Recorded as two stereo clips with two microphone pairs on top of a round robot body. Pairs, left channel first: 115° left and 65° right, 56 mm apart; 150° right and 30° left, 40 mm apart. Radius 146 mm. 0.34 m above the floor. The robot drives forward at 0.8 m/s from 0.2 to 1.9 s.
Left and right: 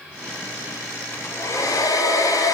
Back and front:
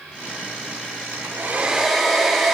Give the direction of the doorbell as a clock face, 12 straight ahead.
I don't hear a doorbell.